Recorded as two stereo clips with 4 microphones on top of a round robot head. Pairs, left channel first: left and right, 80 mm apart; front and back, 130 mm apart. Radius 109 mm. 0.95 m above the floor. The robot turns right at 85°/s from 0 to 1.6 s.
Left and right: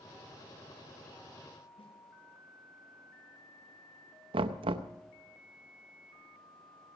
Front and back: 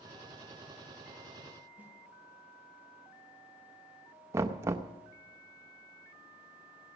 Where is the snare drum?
100° left, 4.5 m.